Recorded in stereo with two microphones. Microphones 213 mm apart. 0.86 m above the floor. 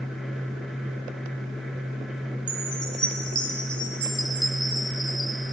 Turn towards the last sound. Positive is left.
turn(degrees=25)  # may be behind; listen again after turning